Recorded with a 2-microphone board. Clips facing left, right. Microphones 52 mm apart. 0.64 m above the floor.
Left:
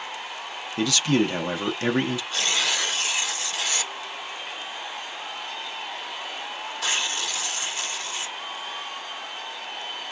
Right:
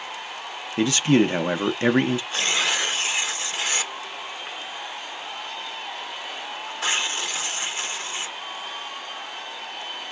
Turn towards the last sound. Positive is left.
turn(degrees=-30)  # may be behind; listen again after turning